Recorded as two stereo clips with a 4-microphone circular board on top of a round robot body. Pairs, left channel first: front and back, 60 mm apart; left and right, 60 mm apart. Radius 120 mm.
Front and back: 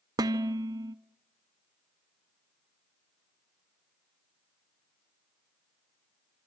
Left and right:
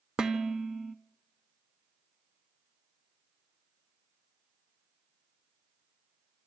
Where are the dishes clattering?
170° right, 0.8 m.